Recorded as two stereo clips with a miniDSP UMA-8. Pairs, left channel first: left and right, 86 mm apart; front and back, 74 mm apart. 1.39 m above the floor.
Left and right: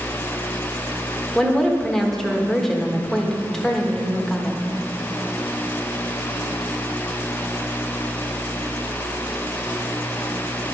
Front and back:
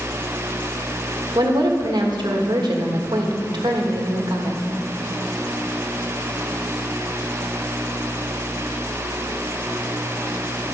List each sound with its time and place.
1.4 s a woman speaking: 175° left, 1.3 m